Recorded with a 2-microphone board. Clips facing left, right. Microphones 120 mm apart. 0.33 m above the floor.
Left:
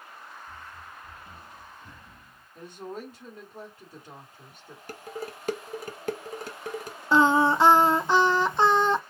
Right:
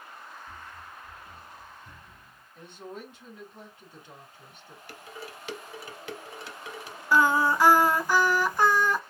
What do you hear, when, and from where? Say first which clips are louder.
0.5 s running footsteps: even; 20° right (ahead or behind), 0.7 m; by 2.5 s 45° left (ahead or behind), 2.5 m
2.5 s a woman speaking: left 4 dB; 40° left (ahead or behind), 2.5 m
4.9 s dishes clattering: left 6 dB; 45° left (ahead or behind), 0.8 m
7.1 s singing: left 3 dB; 25° left (ahead or behind), 0.5 m